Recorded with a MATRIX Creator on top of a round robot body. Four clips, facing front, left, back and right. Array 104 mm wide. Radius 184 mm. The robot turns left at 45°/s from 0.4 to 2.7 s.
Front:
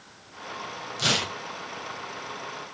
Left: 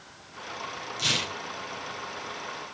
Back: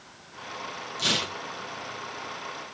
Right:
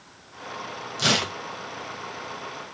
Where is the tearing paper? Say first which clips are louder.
Right 9 dB, front 2 dB; 65° right, 0.7 m; by 1.4 s 80° right, 0.7 m.